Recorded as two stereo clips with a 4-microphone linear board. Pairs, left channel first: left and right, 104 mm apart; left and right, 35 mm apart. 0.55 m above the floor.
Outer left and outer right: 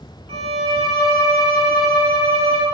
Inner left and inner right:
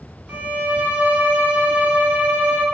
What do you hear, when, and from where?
0.3 s a violin: 70° right (ahead or behind), 0.6 m